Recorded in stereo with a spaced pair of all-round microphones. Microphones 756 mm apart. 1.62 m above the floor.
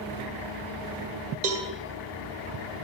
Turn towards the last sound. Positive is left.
turn(degrees=-65)  # may be behind; listen again after turning